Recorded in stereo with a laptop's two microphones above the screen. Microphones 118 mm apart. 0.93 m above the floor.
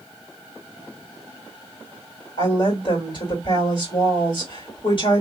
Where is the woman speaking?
50° left (ahead or behind), 2 m.